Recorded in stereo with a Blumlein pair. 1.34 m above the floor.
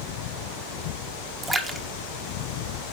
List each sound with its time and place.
1.4 s a splash: 10° right, 1.3 m